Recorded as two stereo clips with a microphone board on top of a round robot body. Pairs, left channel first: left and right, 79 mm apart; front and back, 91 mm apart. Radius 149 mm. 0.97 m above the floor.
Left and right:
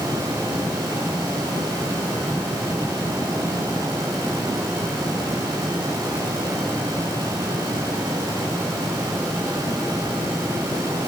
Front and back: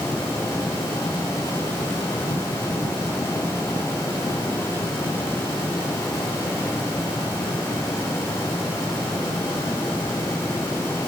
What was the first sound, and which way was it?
Only background noise.